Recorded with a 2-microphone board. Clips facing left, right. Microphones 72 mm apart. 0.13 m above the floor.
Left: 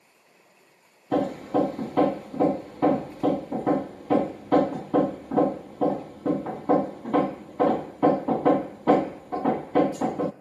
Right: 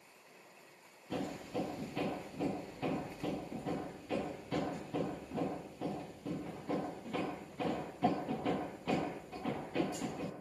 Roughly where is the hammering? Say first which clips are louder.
Left 15 dB; left.